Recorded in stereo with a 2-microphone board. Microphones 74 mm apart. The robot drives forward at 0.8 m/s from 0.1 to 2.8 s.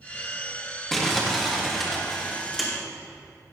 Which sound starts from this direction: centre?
Crumpling, at 0.9 s.